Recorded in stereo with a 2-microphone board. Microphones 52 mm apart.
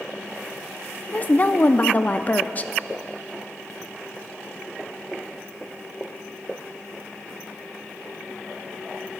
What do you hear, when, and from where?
1.1 s a woman speaking: 35° left (ahead or behind), 0.6 m